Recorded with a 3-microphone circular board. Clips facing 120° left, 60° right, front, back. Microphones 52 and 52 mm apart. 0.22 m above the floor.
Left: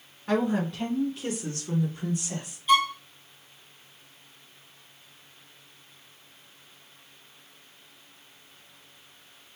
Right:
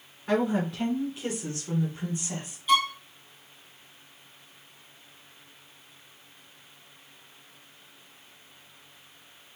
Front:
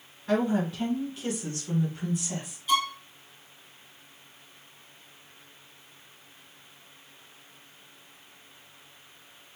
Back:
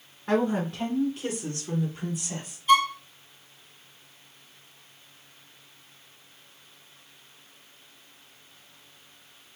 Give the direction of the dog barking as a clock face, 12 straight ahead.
No dog barking in this recording.